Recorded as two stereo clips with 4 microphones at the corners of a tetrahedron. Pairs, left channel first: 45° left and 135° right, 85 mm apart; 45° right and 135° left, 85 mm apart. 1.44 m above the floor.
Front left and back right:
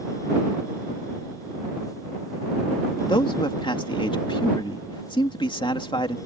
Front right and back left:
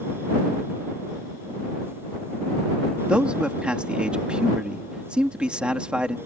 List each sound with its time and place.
3.1 s a man speaking: 55° left